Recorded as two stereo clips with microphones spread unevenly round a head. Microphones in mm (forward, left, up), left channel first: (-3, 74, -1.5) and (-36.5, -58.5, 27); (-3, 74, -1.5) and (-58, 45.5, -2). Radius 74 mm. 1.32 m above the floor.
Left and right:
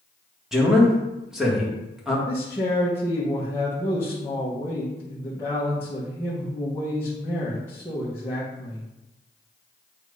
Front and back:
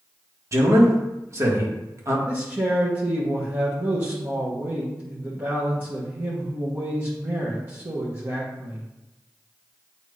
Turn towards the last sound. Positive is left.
turn(degrees=150)